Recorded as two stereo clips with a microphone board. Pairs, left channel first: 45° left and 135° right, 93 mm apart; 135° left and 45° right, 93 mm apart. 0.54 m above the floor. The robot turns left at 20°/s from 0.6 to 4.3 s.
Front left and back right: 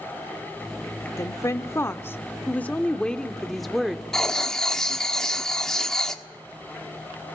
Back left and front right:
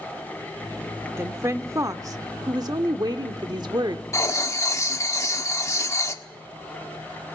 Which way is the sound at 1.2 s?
5° left.